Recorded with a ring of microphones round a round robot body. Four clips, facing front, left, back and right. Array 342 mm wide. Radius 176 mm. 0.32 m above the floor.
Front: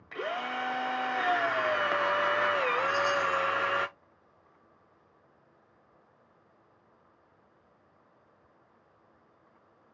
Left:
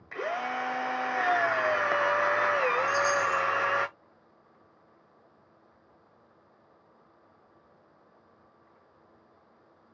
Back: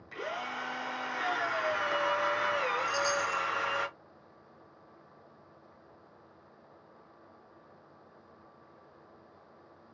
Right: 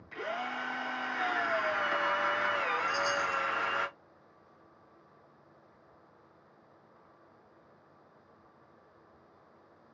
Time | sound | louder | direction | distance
0.1 | a drill | left 5 dB, front 4 dB | 60° left | 1.1 m
2.9 | a chime | left 5 dB, front 3 dB | 155° left | 2.5 m